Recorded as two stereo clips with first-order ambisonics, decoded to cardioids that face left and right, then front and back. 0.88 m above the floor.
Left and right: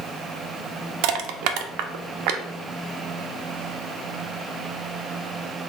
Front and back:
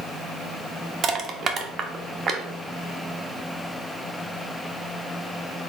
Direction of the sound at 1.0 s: 115° right.